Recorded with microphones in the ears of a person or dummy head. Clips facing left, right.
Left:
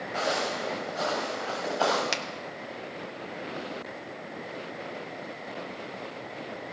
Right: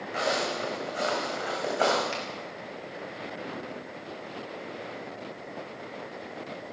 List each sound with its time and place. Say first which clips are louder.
0.1 s footsteps: right 1 dB; 25° right (ahead or behind), 3 m; by 2.0 s 40° right (ahead or behind), 4 m
2.1 s a finger snap: left 1 dB; 75° left (ahead or behind), 0.7 m